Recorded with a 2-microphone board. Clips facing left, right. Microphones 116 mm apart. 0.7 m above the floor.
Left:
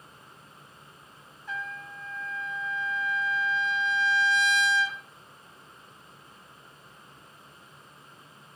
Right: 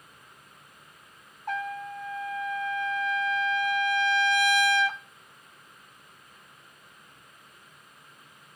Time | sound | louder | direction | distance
1.5 | a trumpet | right 6 dB | 55° right (ahead or behind) | 0.6 m